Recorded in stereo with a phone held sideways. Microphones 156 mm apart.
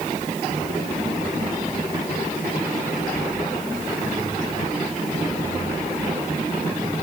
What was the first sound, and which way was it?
Only background noise.